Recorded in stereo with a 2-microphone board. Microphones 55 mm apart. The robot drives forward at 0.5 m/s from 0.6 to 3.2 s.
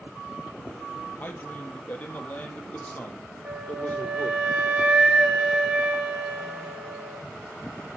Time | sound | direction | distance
1.2 | a man speaking | 30° left (ahead or behind) | 2.5 m
3.5 | a flute | 15° right (ahead or behind) | 1.5 m